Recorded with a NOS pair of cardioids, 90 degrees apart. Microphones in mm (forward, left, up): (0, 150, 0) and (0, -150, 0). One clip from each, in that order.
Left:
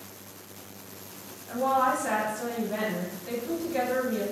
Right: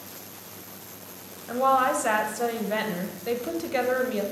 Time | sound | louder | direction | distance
1.5 | a woman speaking | right 3 dB | 50° right | 0.9 m